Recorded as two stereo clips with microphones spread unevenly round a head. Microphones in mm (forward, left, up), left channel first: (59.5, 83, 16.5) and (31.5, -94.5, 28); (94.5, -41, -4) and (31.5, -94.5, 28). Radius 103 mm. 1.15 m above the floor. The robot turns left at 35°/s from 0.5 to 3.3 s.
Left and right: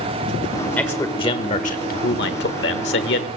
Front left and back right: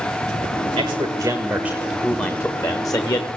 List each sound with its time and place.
0.8 s a man speaking: 160° left, 1.4 m; by 3.3 s 75° left, 1.4 m